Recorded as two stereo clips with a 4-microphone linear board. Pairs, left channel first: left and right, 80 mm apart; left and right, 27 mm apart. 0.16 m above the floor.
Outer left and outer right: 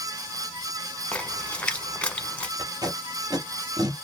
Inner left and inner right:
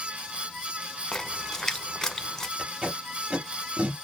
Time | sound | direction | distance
1.1 | a splash | 15° left (ahead or behind) | 0.7 m
2.6 | tape being pulled | 50° right (ahead or behind) | 1.9 m